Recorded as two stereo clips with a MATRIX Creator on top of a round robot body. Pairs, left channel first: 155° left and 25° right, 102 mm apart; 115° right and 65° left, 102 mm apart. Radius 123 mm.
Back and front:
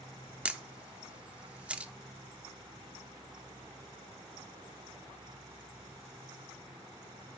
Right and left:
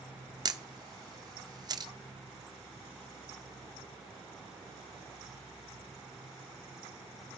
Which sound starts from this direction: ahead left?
A camera shutter, at 0.5 s.